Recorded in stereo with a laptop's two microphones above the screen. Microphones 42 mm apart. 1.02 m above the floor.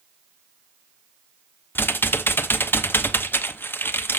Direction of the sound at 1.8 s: 60° left (ahead or behind).